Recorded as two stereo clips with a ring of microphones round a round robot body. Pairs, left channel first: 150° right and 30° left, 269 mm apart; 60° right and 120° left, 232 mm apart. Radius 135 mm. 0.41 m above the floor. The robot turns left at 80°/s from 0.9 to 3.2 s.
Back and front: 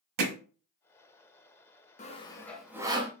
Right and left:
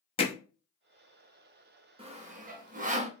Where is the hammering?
10° left, 1.1 m.